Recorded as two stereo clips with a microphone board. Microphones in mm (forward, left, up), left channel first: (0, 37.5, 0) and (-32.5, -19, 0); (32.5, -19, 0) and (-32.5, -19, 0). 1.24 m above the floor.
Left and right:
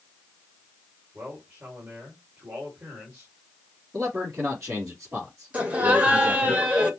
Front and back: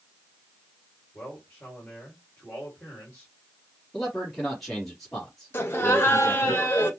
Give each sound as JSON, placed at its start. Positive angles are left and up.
{"t": 1.1, "sound": "a man speaking", "azimuth_deg": -70, "distance_m": 2.5}
{"t": 3.9, "sound": "a man speaking", "azimuth_deg": -85, "distance_m": 3.0}
{"t": 5.5, "sound": "laughter", "azimuth_deg": -50, "distance_m": 1.5}